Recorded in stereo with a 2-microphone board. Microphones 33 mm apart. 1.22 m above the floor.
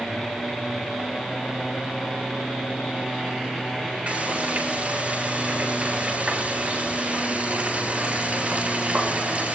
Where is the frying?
50° right (ahead or behind), 8.5 m.